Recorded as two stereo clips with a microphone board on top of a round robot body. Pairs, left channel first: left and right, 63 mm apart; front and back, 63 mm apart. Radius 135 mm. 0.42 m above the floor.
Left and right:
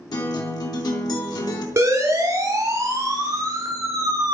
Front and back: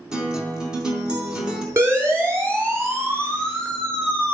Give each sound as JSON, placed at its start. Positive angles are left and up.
{"t": 0.1, "sound": "a guitar", "azimuth_deg": 105, "distance_m": 4.0}
{"t": 1.8, "sound": "a siren", "azimuth_deg": -135, "distance_m": 7.0}